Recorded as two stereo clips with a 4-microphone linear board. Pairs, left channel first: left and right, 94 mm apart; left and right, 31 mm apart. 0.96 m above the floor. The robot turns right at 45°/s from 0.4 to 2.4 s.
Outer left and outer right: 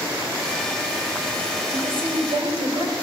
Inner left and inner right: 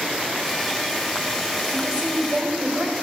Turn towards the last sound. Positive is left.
turn(degrees=-55)